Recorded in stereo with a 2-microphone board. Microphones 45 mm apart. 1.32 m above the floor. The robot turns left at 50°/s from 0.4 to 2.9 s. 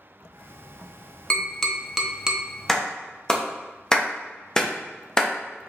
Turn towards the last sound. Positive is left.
turn(degrees=15)  # may be behind; listen again after turning